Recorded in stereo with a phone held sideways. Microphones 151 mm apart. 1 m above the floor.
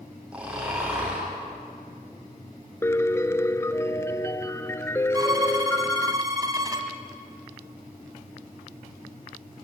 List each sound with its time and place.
0.3 s snoring: 10° right (ahead or behind), 9.5 m
2.8 s a piano: 15° left (ahead or behind), 0.7 m
5.1 s a violin: 25° right (ahead or behind), 2 m